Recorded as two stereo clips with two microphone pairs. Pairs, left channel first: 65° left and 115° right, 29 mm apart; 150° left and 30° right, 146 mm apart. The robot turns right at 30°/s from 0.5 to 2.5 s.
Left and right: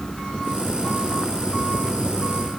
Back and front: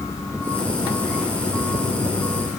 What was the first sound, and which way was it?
Only background noise.